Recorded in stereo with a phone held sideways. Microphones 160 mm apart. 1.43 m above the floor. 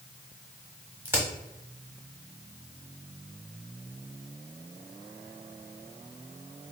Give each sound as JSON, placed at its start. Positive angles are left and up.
{"t": 1.1, "sound": "a crack", "side_deg": -10, "distance_m": 1.1}